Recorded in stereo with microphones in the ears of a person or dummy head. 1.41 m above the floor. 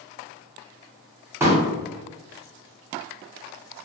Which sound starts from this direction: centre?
A pop, at 1.4 s.